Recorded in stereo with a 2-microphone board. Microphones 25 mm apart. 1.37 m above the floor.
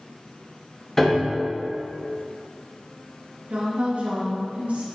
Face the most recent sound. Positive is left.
turn(degrees=-75)  # may be behind; listen again after turning